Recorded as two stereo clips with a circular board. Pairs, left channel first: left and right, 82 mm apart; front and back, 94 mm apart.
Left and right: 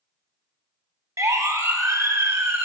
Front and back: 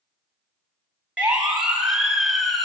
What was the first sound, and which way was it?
A siren, 105° right.